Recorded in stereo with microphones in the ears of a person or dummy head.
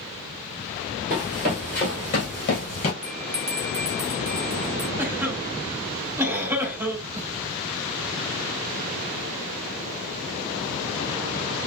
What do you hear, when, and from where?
1.1 s running footsteps: 5° right (ahead or behind), 1.7 m; by 2.9 s 30° left (ahead or behind), 1.4 m
3.0 s a bell: 35° right (ahead or behind), 0.8 m
5.0 s a cough: 20° right (ahead or behind), 1.7 m